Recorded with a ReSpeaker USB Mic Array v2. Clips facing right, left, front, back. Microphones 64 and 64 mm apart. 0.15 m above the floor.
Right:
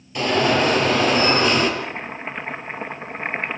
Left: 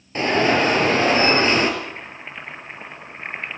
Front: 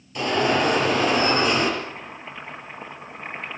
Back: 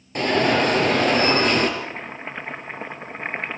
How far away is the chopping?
About 2.0 m.